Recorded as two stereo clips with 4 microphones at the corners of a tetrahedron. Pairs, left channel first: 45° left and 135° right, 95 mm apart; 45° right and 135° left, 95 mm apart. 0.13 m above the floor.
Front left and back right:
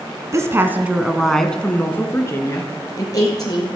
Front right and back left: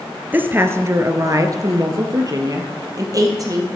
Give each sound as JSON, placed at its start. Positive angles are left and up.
{"t": 0.3, "sound": "a woman speaking", "azimuth_deg": -165, "distance_m": 1.7}